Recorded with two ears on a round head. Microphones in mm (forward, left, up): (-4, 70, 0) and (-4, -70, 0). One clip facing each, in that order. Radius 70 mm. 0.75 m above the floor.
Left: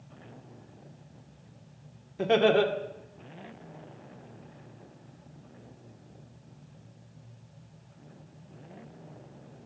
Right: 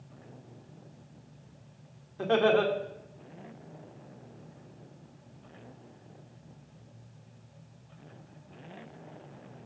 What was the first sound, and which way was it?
Laughter, 20° left (ahead or behind).